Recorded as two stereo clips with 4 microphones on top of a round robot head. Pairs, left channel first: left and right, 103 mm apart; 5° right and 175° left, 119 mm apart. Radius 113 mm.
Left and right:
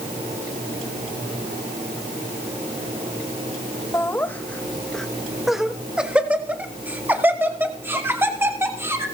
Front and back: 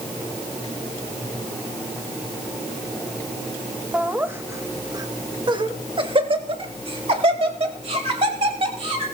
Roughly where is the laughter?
Left.